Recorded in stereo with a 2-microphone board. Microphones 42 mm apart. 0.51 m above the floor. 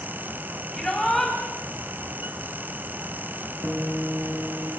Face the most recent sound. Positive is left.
turn(degrees=10)  # may be behind; listen again after turning